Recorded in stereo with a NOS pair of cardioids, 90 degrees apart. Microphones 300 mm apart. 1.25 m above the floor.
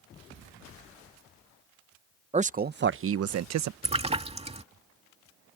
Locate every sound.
2.3 s a man speaking: 20° right; by 3.7 s 65° right
3.8 s a splash: 20° right